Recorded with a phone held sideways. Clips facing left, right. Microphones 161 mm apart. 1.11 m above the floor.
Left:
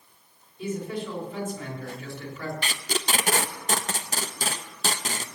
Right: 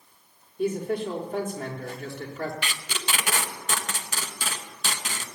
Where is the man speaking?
55° right (ahead or behind), 3.5 m.